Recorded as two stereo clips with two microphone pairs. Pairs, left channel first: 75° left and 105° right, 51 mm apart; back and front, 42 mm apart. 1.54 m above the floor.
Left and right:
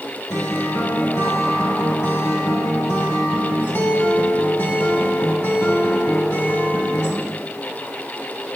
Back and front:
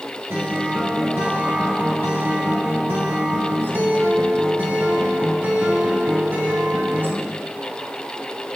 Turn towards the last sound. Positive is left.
turn(degrees=35)